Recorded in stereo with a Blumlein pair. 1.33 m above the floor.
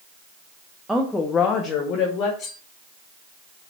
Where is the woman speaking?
5° right, 0.7 m; by 2.3 s 35° left, 1.4 m.